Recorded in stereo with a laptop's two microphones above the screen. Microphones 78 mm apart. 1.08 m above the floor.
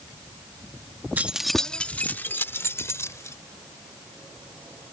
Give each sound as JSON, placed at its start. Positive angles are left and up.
{"t": 1.2, "sound": "keys jangling", "side_deg": -20}